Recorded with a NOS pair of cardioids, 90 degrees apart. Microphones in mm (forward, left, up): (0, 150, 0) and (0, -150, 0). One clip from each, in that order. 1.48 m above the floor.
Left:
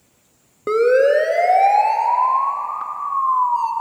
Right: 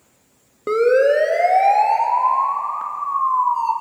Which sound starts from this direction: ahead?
A siren, at 0.7 s.